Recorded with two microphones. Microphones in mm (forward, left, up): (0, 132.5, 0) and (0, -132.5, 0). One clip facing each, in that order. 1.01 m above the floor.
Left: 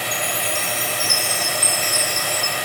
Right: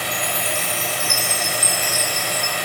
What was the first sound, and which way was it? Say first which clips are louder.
A chime: even; 10° right (ahead or behind).